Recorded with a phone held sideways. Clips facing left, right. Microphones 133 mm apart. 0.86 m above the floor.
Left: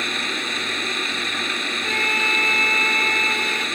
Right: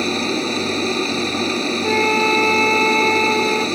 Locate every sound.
0.0 s a machine running: 35° right (ahead or behind)
1.8 s a flute: 50° right (ahead or behind)